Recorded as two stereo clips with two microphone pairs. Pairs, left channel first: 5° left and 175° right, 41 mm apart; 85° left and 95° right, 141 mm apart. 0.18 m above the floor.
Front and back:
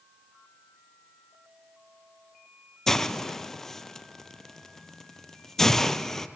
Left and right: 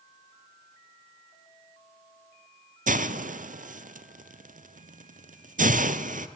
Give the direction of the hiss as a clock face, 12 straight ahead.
3 o'clock.